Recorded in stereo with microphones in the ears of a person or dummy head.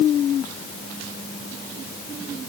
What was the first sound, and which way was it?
Only background noise.